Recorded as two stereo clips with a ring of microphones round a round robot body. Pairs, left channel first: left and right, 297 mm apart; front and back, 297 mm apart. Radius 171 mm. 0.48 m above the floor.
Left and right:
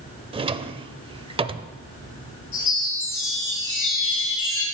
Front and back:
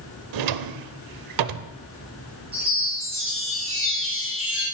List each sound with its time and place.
0.3 s a drawer: 165° right, 0.6 m
2.5 s a chime: 115° left, 7 m